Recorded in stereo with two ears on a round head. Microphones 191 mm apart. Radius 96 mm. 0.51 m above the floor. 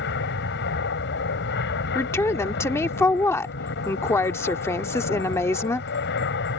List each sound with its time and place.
0.0 s an aircraft: 55° left (ahead or behind)
1.9 s a woman speaking: 10° left (ahead or behind)